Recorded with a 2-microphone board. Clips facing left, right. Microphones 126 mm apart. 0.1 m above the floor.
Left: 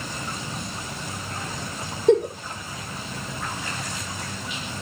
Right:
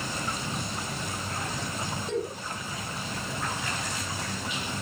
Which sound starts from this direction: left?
A giggle, at 2.1 s.